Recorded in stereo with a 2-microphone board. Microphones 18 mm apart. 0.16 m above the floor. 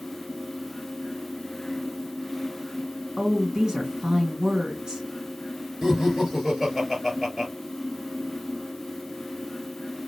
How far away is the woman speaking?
About 2 m.